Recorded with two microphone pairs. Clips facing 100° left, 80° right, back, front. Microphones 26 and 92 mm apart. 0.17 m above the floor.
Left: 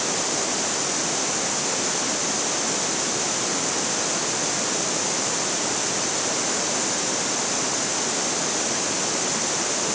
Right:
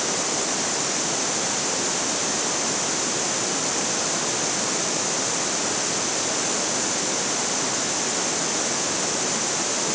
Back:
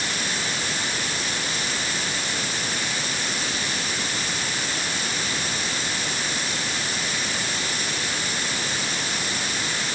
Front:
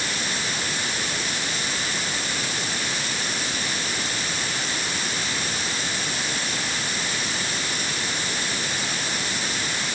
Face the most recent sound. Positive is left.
No sound to turn to.